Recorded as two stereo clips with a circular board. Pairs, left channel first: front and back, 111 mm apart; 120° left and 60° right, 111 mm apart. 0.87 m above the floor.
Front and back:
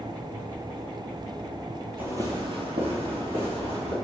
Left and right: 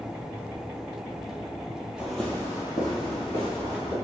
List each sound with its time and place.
2.0 s footsteps: 130° right, 0.9 m; by 3.9 s 160° left, 3 m